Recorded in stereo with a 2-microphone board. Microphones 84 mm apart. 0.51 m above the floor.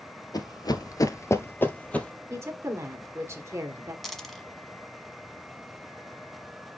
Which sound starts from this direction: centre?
A dropped coin, at 4.0 s.